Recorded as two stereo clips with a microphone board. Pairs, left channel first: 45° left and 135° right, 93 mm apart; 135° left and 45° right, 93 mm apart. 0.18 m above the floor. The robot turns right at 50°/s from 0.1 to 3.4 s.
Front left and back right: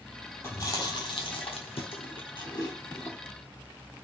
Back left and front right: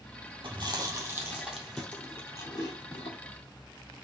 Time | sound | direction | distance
0.4 | chewing | 10° right | 1.4 m